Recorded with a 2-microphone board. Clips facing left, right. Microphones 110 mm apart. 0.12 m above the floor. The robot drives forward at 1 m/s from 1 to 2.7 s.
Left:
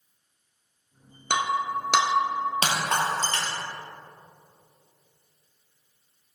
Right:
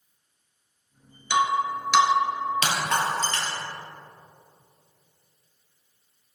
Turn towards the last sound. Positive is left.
turn(degrees=35)  # may be behind; listen again after turning